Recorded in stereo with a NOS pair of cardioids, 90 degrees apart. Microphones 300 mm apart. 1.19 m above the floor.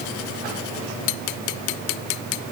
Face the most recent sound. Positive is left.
No sound to turn to.